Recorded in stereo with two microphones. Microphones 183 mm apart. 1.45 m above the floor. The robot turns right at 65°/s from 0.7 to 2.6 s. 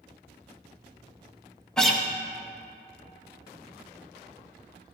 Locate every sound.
1.8 s a guitar: 5° left (ahead or behind), 0.8 m; by 2.0 s 5° right (ahead or behind), 0.8 m